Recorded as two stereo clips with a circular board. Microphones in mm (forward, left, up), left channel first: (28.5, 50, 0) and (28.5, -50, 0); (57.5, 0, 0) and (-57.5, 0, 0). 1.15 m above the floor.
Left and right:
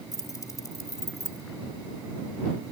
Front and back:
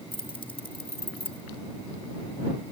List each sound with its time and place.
0.1 s keys jangling: 40° left; by 1.4 s 30° left